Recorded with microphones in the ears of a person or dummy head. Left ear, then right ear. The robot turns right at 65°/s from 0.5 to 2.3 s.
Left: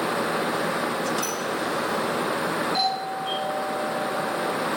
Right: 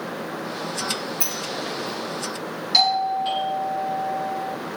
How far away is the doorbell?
About 4 m.